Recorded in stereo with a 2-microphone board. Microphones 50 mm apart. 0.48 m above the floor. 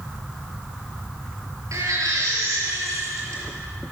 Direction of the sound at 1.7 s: 70° right (ahead or behind).